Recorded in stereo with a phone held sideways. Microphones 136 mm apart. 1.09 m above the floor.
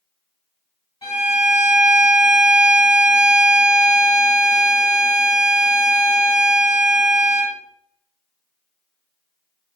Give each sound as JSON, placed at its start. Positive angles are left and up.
{"t": 1.0, "sound": "a violin", "side_deg": 40, "distance_m": 1.5}